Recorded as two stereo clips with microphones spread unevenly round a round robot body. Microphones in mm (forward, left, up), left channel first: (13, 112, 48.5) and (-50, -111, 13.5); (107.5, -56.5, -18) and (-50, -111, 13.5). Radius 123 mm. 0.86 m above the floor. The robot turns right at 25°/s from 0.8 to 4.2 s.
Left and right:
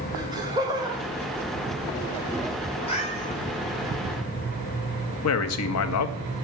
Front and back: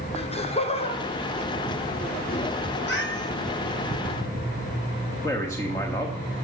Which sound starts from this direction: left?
A man speaking, at 5.2 s.